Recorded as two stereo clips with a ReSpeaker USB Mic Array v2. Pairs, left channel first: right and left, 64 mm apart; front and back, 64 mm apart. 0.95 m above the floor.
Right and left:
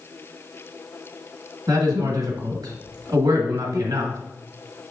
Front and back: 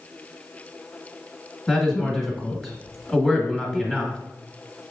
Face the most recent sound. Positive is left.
turn(degrees=85)